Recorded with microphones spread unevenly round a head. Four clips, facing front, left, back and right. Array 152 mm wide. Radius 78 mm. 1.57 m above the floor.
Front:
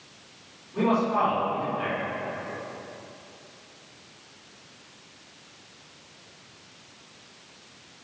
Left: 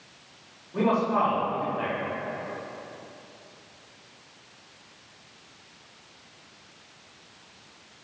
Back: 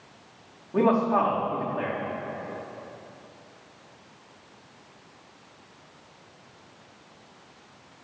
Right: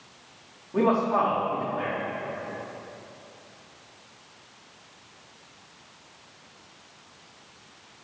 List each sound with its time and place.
0.7 s a man speaking: 160° right, 4 m